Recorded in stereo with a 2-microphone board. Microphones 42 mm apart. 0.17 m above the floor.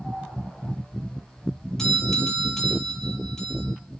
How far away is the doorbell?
About 5.5 m.